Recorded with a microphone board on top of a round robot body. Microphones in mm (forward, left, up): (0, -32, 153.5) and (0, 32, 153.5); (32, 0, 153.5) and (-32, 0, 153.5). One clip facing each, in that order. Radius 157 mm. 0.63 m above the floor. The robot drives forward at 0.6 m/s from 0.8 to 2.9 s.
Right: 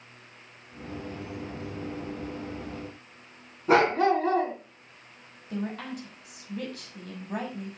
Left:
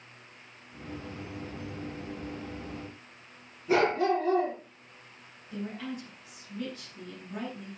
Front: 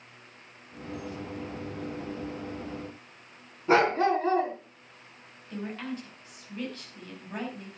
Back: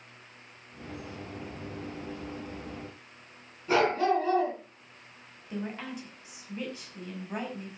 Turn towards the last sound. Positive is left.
turn(degrees=-105)